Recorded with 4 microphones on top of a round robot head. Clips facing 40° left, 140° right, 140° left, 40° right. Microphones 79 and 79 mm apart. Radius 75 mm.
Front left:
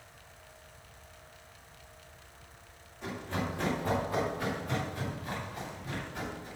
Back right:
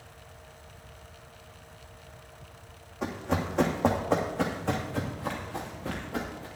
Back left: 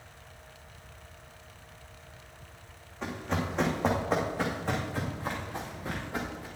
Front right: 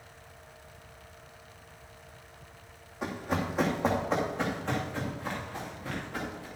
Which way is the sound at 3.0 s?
115° right.